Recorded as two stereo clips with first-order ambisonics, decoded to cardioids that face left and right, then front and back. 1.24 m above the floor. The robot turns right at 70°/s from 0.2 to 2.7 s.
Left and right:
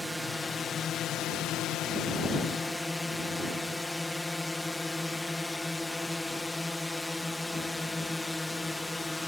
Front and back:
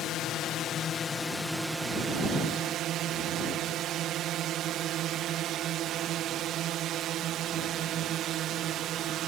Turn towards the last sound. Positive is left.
turn(degrees=170)